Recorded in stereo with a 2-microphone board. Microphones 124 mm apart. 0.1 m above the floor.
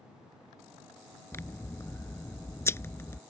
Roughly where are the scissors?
Left.